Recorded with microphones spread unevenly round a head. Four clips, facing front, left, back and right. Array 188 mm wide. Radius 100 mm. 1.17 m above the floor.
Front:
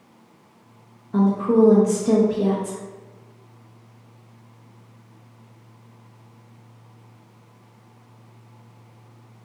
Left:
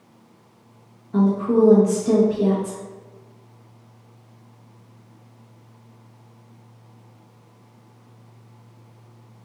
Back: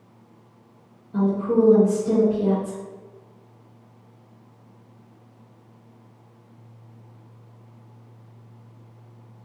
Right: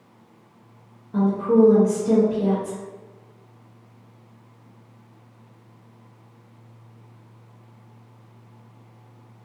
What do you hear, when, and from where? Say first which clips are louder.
1.1 s a woman speaking: even, front 3 dB; straight ahead, 1.0 m